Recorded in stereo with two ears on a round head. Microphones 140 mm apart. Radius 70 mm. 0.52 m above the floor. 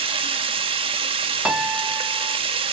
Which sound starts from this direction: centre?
A piano, at 1.4 s.